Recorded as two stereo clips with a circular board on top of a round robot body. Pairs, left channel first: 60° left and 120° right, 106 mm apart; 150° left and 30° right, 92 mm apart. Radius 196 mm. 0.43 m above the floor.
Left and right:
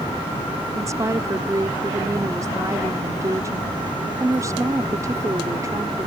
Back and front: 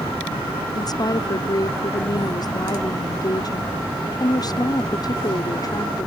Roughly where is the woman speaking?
Behind.